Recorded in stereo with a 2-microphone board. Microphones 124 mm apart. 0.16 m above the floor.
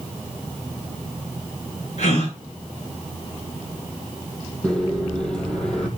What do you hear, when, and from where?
2.0 s a gasp: 55° left (ahead or behind), 9.5 m
4.6 s a microwave: 5° left (ahead or behind), 4.5 m